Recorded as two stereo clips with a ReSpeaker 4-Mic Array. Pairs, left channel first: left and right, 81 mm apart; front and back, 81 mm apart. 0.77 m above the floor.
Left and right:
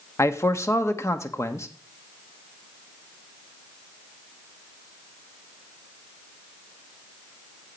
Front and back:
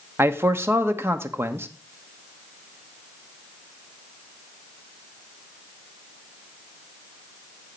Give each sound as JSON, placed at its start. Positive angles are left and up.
{"t": 0.2, "sound": "a man speaking", "azimuth_deg": 130, "distance_m": 1.2}